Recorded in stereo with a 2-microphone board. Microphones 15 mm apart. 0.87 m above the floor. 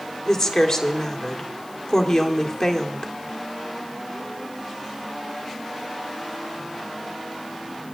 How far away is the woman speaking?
About 1.7 m.